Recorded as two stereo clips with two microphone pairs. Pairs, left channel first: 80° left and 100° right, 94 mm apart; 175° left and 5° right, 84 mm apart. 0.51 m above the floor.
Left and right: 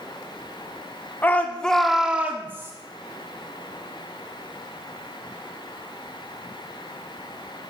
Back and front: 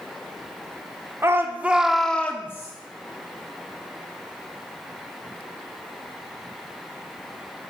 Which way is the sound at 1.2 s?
25° left.